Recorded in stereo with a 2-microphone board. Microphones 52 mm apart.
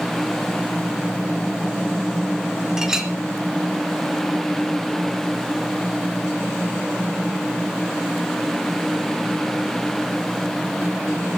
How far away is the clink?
About 1.3 m.